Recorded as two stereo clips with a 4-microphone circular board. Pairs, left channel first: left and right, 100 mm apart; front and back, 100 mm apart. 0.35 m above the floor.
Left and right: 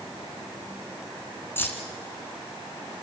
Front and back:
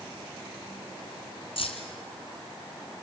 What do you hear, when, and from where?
1.6 s keys jangling: 20° left, 2.5 m